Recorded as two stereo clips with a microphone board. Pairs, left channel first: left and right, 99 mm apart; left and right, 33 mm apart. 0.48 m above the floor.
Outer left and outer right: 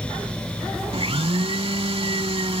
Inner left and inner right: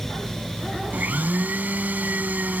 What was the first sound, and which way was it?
A blender, 75° right (ahead or behind).